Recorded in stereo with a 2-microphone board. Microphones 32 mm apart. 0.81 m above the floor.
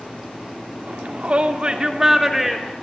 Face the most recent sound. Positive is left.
turn(degrees=0)  # may be behind; listen again after turning